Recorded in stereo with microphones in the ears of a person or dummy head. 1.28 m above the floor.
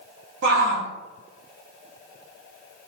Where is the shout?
70° right (ahead or behind), 0.6 m.